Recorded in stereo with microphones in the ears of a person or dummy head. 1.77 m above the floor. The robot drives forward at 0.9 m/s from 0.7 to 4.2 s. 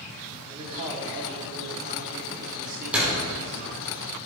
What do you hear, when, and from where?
0.5 s a man speaking: 25° right (ahead or behind), 4.5 m; by 3.7 s 55° right (ahead or behind), 2.5 m
2.9 s a door slam: 5° right (ahead or behind), 5 m